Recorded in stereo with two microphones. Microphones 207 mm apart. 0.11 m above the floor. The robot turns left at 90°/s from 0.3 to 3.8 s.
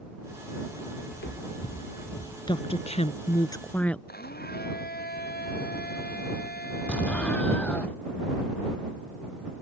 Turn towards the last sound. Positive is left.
turn(degrees=5)  # may be behind; listen again after turning